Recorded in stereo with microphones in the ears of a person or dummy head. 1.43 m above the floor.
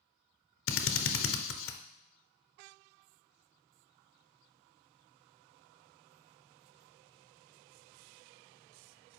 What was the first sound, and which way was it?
A drill, 70° left (ahead or behind).